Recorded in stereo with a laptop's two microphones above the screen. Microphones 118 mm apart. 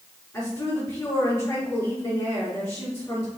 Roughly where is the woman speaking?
Left.